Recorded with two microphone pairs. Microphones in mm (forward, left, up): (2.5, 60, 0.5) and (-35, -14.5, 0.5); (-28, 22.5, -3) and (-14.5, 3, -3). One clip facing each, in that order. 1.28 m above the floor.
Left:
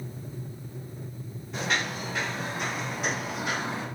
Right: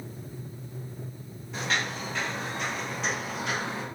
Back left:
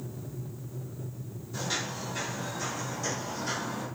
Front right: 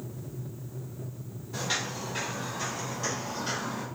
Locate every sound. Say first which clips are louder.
1.5 s footsteps: left 1 dB, front right 2 dB; 25° right, 2 m; by 3.9 s 5° right, 3 m